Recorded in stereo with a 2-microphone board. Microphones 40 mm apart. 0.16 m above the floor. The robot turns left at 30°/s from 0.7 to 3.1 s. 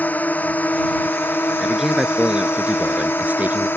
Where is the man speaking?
5° right; by 3.7 s 50° right.